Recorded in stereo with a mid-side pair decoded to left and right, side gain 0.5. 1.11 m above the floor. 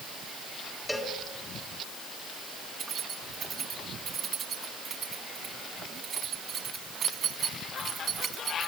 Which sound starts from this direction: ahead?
A cowbell, at 0.9 s.